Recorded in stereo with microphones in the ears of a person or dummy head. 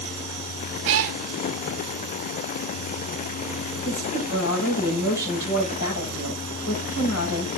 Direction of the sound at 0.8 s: 50° right (ahead or behind).